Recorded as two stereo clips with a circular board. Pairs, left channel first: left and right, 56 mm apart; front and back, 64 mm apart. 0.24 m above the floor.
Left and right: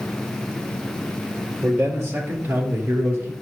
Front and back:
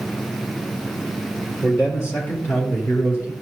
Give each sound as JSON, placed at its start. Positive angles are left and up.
{"t": 1.6, "sound": "a man speaking", "azimuth_deg": -40, "distance_m": 4.0}